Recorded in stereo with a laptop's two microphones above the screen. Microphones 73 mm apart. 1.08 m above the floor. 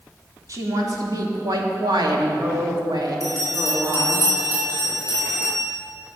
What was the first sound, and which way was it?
A woman speaking, 50° right (ahead or behind).